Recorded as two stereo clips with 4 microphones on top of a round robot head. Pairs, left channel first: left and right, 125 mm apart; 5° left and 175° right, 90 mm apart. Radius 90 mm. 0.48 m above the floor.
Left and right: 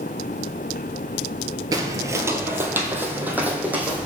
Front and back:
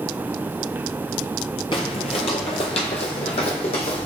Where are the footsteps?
40° right, 0.6 m; by 4.1 s 15° right, 1.9 m.